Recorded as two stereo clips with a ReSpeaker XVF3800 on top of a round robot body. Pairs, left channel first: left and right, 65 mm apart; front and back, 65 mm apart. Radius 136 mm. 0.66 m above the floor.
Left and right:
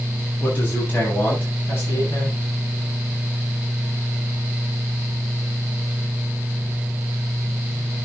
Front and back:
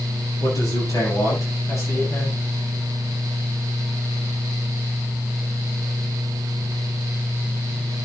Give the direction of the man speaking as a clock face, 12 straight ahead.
11 o'clock.